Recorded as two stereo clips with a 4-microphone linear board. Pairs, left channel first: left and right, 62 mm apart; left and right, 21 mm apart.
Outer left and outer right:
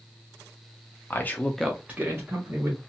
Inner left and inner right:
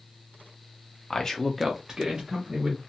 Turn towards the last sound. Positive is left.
turn(degrees=-45)  # may be behind; listen again after turning